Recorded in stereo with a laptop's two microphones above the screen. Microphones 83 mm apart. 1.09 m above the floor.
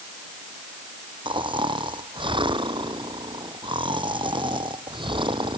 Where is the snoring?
85° right.